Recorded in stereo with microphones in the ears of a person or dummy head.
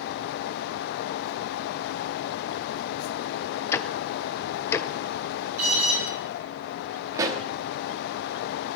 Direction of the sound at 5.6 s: 70° right (ahead or behind).